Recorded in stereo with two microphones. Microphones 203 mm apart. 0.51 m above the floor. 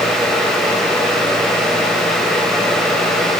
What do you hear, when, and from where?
Only background noise.